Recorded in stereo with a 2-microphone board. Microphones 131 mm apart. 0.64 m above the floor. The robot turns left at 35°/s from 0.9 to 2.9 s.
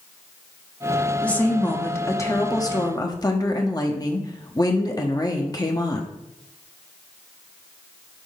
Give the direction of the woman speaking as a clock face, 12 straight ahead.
7 o'clock.